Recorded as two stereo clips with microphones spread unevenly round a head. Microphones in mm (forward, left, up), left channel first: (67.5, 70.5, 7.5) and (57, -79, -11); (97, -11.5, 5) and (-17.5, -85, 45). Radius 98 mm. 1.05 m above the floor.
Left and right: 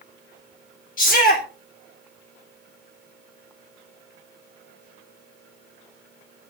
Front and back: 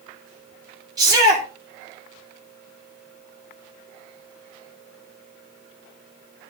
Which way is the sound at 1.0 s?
140° left.